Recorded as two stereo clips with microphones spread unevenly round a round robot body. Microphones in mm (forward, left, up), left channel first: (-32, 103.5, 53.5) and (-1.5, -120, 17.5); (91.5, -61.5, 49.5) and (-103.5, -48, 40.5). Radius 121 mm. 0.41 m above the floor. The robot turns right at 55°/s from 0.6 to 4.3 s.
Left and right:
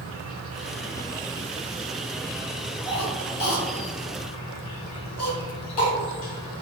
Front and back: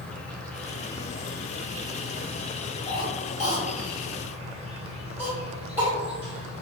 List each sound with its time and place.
0.0 s an insect: 90° right, 0.8 m; by 6.6 s 115° left, 0.8 m
2.9 s a cough: 20° left, 1.4 m; by 5.9 s 100° left, 1.4 m